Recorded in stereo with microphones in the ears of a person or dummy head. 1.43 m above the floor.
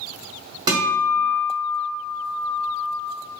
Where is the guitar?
20° right (ahead or behind), 1.4 m.